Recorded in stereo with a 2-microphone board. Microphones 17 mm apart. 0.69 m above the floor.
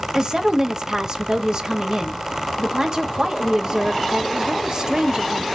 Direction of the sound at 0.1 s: 35° right (ahead or behind).